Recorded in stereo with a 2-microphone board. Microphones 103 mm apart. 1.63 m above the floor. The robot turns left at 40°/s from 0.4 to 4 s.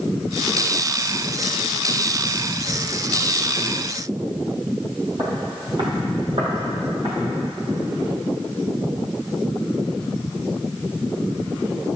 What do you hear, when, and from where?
5.2 s footsteps: 40° right (ahead or behind), 2 m; by 7.1 s 65° right (ahead or behind), 3.5 m